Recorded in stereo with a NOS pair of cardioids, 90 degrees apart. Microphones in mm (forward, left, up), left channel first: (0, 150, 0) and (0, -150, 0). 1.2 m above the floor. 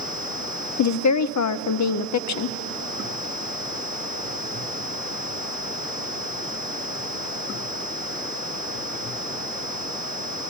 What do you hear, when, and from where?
0.8 s a woman speaking: 70° left, 0.6 m